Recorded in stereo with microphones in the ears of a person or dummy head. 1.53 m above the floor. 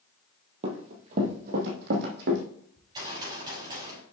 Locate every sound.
0.6 s running footsteps: 30° right (ahead or behind), 1.7 m; by 2.4 s 60° right (ahead or behind), 3 m
2.8 s a gunshot: 25° right (ahead or behind), 5.5 m